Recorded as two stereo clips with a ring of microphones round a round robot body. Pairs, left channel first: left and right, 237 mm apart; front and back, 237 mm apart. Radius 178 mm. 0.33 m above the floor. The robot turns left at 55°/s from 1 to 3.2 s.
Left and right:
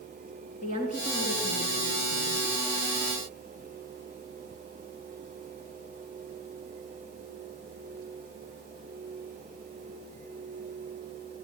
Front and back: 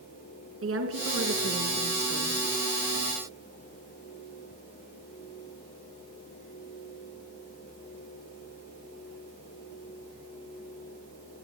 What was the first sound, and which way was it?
A woman speaking, 155° left.